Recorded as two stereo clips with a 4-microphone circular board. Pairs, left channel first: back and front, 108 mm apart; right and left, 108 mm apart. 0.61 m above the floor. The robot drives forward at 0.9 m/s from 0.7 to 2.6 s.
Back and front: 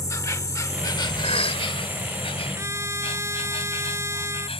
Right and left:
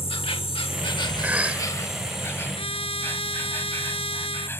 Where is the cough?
165° left.